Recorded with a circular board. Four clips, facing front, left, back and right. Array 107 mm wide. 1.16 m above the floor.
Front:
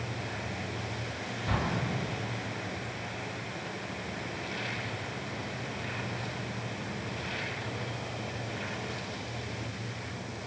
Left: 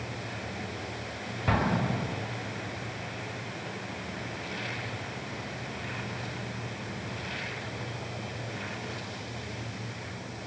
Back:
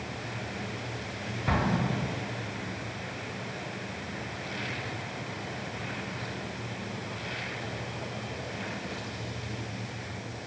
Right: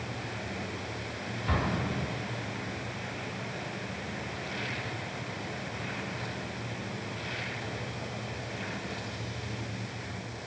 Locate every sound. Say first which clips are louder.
1.5 s an explosion: left 4 dB, back 4 dB; 115° left, 2.0 m